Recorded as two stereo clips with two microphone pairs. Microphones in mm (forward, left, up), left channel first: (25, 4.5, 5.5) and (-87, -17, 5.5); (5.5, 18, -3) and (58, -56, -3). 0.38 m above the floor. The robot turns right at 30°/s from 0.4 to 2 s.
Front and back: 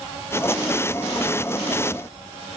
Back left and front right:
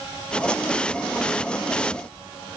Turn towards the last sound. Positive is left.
No sound to turn to.